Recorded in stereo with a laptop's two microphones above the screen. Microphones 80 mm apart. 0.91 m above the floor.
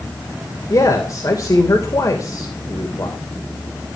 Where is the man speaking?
50° left (ahead or behind), 3 m.